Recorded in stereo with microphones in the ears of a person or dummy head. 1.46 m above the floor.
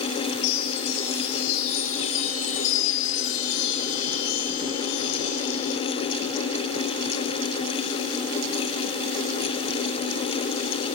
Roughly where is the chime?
Left.